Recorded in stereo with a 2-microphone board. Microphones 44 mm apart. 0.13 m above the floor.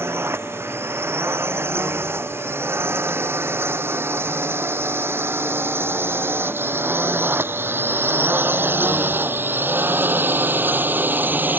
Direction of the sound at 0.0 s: 70° right (ahead or behind).